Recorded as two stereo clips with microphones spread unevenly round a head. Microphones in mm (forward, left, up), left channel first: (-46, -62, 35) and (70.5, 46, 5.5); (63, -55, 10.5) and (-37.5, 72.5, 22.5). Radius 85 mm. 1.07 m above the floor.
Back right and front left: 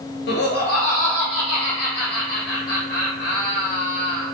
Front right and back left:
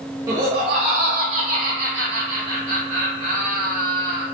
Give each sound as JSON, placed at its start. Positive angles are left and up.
{"t": 0.3, "sound": "laughter", "azimuth_deg": -160, "distance_m": 0.6}